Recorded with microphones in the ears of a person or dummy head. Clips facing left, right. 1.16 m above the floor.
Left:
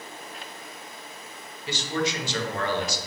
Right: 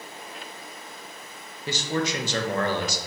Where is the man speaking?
40° right (ahead or behind), 0.8 m.